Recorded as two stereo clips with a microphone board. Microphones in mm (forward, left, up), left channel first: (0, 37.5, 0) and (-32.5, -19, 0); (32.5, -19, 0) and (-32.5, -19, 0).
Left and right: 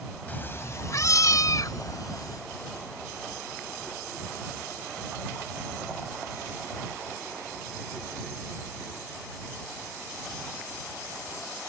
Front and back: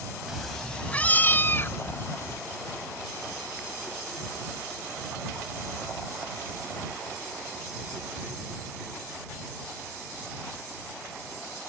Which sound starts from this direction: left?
A cat meowing, at 0.3 s.